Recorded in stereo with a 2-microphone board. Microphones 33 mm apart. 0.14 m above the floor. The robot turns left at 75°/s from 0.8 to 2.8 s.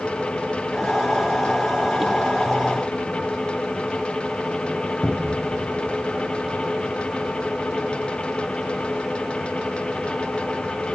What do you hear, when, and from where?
5.0 s a cupboard door: 25° left (ahead or behind), 3 m